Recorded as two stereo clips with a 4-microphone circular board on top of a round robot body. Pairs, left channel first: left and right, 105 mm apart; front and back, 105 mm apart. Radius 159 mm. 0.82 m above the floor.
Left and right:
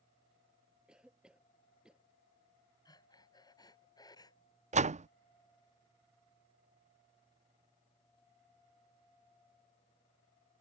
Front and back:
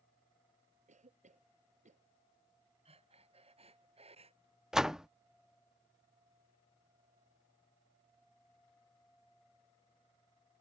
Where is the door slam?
95° right.